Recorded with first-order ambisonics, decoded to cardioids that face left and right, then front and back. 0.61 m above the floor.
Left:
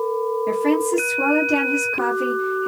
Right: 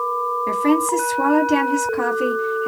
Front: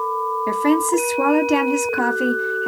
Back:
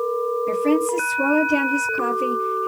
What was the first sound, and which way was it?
A woman speaking, 5° right.